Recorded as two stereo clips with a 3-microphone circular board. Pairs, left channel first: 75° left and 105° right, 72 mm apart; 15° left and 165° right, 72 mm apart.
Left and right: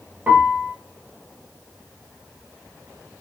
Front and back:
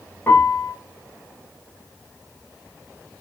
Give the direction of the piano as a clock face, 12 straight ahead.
1 o'clock.